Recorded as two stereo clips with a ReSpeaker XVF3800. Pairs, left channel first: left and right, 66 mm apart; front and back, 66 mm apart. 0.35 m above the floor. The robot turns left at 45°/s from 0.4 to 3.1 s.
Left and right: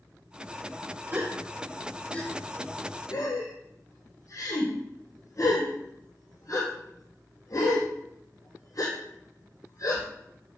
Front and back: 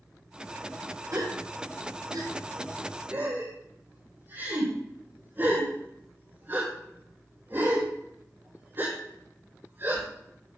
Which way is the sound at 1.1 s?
150° right.